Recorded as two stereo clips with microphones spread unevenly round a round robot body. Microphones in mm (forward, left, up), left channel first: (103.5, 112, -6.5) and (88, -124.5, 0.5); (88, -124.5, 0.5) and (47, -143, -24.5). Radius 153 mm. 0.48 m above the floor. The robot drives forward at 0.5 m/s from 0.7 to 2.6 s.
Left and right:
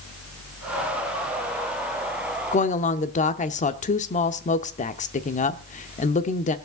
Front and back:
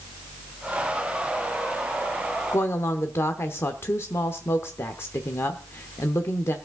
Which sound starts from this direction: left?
A woman speaking, at 2.5 s.